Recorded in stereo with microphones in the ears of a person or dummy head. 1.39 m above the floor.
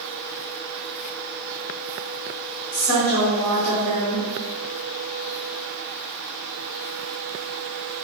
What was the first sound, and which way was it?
A woman speaking, 55° left (ahead or behind).